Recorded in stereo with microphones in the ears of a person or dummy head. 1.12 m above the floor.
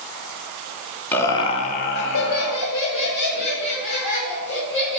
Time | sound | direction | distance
1.1 | laughter | 10° left (ahead or behind) | 0.6 m